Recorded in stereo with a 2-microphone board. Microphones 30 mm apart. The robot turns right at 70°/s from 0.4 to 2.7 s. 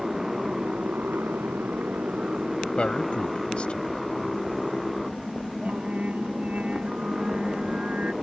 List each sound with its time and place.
0.0 s a motorcycle: 165° right; by 8.2 s 5° right
2.8 s a man speaking: 35° left (ahead or behind)
5.7 s singing: 55° right (ahead or behind)